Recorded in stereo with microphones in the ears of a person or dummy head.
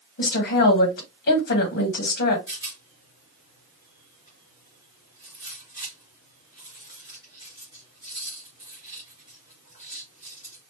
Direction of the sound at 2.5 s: 20° right (ahead or behind).